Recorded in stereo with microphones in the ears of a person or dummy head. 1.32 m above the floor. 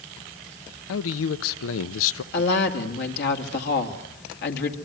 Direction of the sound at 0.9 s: 70° left (ahead or behind).